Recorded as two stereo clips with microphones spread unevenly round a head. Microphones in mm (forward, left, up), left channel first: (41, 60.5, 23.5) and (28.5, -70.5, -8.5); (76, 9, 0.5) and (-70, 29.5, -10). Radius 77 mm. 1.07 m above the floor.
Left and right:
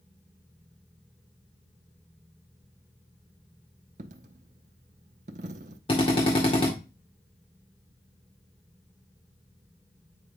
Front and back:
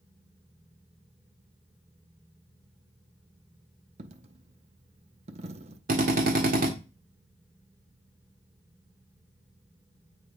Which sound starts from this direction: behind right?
A dropped coin, at 4.0 s.